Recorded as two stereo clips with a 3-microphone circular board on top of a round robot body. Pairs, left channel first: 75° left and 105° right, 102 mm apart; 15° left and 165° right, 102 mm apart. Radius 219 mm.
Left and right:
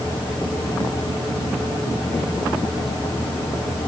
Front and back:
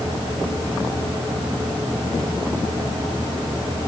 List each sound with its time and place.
Only background noise.